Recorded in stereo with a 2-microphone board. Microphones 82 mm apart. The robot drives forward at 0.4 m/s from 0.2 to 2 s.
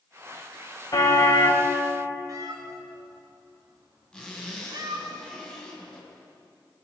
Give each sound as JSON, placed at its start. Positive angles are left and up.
{"t": 0.9, "sound": "a car horn", "side_deg": 50, "distance_m": 3.5}
{"t": 2.3, "sound": "a cat meowing", "side_deg": -50, "distance_m": 3.0}
{"t": 4.1, "sound": "a zipper", "side_deg": 10, "distance_m": 6.5}